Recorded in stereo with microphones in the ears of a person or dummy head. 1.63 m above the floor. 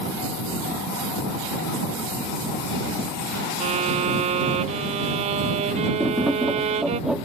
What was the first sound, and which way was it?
A violin, 35° right (ahead or behind).